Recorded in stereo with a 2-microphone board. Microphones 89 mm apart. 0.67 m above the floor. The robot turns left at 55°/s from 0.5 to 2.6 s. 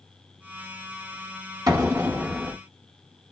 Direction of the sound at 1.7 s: 130° right.